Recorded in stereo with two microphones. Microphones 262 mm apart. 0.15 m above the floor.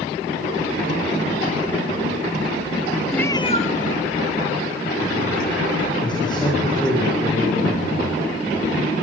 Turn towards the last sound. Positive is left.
turn(degrees=15)  # may be behind; listen again after turning